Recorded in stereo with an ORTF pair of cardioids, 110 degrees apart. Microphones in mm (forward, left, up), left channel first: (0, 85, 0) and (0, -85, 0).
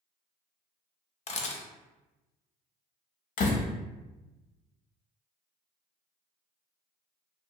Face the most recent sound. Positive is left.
turn(degrees=50)